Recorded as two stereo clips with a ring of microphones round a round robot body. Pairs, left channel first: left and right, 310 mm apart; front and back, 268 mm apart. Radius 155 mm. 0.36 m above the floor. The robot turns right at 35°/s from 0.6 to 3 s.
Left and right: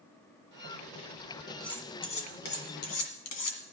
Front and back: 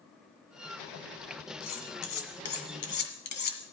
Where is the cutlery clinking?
Straight ahead, 1.9 m; by 3.6 s 50° left, 1.9 m.